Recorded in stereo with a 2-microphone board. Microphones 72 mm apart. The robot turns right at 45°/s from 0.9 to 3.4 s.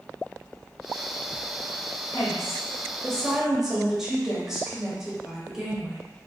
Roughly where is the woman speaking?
Behind left.